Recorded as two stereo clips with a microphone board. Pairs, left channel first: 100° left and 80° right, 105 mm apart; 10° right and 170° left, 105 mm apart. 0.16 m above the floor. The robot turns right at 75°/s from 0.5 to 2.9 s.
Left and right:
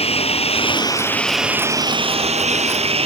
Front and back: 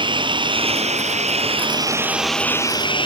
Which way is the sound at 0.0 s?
125° left.